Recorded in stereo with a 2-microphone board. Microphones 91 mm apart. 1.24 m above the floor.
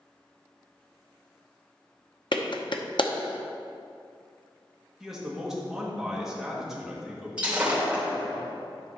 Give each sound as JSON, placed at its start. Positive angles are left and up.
{"t": 2.3, "sound": "a clap", "side_deg": 60, "distance_m": 0.7}
{"t": 5.0, "sound": "a man speaking", "side_deg": -5, "distance_m": 1.9}
{"t": 7.4, "sound": "breaking glass", "side_deg": -10, "distance_m": 3.0}